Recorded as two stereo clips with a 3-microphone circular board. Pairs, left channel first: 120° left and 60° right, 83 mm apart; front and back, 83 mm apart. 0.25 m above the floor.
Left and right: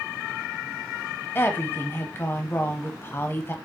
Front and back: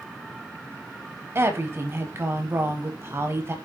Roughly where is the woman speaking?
Behind left.